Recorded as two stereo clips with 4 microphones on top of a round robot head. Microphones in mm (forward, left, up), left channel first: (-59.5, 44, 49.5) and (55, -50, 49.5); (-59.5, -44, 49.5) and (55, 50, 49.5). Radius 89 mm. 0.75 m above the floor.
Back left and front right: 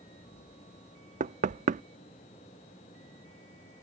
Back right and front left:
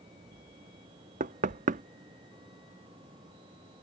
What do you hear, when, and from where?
1.2 s knocking: straight ahead